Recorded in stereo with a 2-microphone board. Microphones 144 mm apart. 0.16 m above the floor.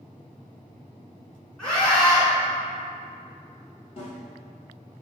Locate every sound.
1.6 s a scream: 5° left (ahead or behind), 1.8 m
4.0 s a snare drum: 40° left (ahead or behind), 1.7 m